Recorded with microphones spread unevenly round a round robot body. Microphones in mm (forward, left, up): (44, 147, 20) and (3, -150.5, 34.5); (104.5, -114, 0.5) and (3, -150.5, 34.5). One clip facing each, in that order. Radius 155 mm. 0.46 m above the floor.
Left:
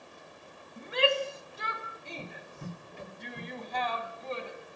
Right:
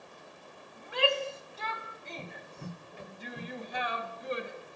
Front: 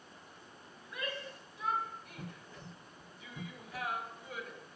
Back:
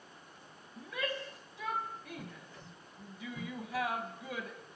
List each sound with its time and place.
0.8 s a shout: 150° left, 3.5 m; by 4.6 s 170° right, 3 m